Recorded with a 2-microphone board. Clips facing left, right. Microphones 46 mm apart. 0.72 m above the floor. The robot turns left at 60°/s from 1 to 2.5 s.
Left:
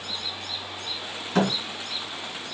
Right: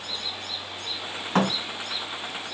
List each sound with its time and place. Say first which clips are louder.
1.4 s a thud: even; 40° right (ahead or behind), 3.5 m; by 1.6 s 50° right (ahead or behind), 3.5 m